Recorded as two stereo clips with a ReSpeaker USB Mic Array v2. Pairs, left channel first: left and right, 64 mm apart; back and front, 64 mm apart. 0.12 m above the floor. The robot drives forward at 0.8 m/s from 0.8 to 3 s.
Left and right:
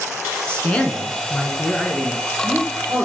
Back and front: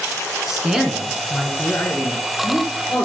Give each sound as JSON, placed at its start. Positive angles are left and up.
{"t": 0.5, "sound": "a man speaking", "azimuth_deg": 75, "distance_m": 1.1}